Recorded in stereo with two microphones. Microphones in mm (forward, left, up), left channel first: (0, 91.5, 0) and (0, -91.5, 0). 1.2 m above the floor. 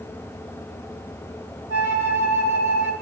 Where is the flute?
65° left (ahead or behind), 3 m.